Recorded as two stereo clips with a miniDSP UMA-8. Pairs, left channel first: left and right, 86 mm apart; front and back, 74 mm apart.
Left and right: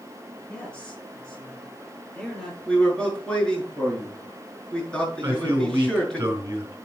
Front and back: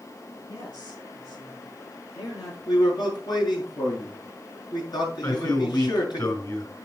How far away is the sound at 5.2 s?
About 3.5 m.